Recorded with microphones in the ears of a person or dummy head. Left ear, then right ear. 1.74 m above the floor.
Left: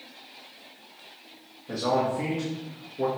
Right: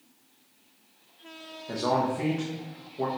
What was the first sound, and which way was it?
A man speaking, 15° right (ahead or behind).